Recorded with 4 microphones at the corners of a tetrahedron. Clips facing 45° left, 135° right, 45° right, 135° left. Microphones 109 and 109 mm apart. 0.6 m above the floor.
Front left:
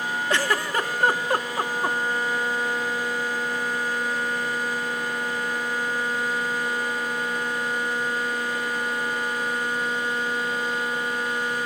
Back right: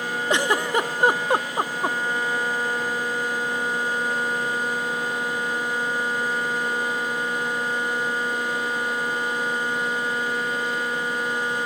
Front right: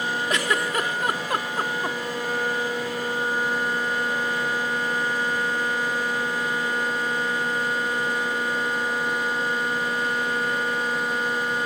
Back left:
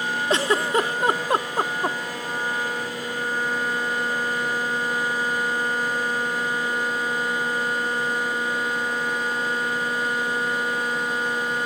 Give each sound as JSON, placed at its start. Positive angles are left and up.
{"t": 0.3, "sound": "a giggle", "azimuth_deg": 170, "distance_m": 0.9}